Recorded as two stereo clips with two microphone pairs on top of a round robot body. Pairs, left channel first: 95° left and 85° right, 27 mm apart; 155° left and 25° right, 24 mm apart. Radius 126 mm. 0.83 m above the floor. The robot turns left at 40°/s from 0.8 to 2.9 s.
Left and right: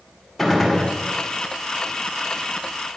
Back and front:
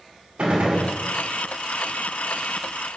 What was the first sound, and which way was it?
A gunshot, 10° left.